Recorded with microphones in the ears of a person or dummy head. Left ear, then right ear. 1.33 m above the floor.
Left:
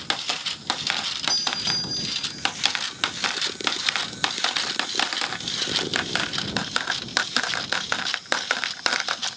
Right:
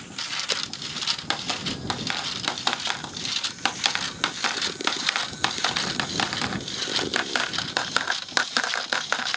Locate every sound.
1.3 s a doorbell: 80° left